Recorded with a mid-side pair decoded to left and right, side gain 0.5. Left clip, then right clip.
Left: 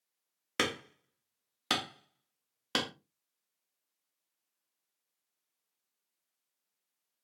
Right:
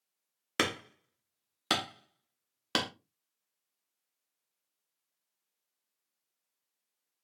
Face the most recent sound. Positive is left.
turn(degrees=-15)